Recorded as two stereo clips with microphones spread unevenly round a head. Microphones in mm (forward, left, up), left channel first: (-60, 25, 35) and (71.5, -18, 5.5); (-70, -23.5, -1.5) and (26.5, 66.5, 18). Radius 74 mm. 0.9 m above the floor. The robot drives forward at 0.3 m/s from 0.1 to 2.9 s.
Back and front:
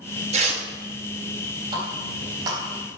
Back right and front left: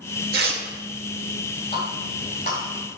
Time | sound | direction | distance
0.3 | tearing paper | 20° left | 1.1 m
1.7 | a running tap | 80° right | 3 m